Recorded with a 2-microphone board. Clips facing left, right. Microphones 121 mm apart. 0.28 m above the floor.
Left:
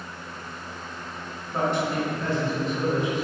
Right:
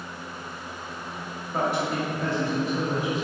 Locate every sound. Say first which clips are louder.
1.5 s a man speaking: left 1 dB; 10° right (ahead or behind), 1.0 m